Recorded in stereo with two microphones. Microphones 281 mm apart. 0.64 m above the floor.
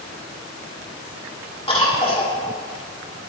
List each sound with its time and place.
1.7 s a cough: 20° left (ahead or behind), 1.6 m